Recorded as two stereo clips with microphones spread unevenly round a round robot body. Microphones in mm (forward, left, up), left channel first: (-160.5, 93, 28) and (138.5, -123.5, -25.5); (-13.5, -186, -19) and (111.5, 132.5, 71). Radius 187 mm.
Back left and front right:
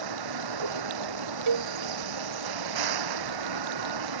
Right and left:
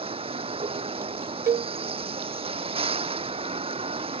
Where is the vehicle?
5° right.